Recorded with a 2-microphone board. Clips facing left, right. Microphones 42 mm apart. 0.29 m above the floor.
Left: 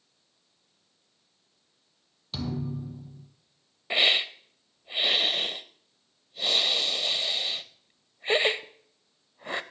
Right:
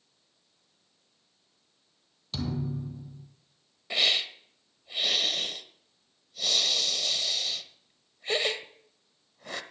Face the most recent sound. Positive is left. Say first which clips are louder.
# left 3 dB
turn(degrees=30)  # may be behind; listen again after turning